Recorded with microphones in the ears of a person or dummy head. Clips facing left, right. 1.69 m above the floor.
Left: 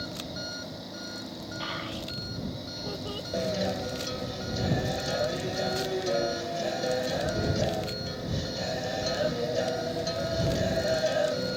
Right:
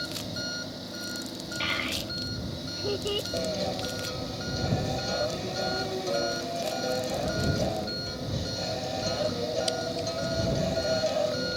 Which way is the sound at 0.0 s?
Centre (ahead or behind).